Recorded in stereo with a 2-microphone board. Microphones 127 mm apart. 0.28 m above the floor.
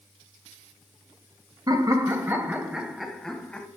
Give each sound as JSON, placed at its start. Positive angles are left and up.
{"t": 1.7, "sound": "laughter", "side_deg": -30, "distance_m": 1.2}